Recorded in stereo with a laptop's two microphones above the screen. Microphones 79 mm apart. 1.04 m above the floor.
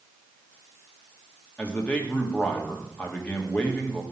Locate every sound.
1.6 s a man speaking: 15° left (ahead or behind), 1.4 m